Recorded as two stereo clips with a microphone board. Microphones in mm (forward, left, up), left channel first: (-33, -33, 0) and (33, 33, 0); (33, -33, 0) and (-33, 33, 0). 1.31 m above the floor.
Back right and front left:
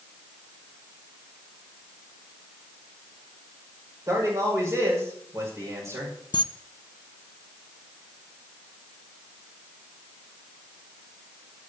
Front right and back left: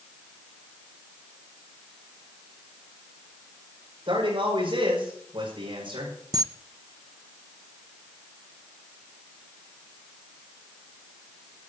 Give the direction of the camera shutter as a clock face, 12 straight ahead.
6 o'clock.